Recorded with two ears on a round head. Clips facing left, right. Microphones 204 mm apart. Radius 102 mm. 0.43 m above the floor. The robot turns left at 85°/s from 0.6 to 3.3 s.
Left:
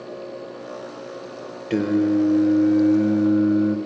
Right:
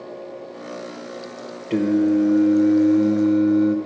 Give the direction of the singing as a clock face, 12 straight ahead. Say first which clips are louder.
Right 1 dB; 11 o'clock.